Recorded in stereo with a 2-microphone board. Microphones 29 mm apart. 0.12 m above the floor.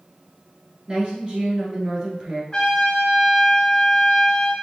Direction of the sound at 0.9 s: 35° right (ahead or behind).